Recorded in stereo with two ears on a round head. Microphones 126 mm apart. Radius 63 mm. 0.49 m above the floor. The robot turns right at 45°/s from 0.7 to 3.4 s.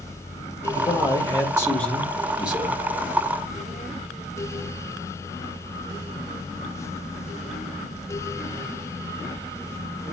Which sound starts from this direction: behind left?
A man speaking, at 0.8 s.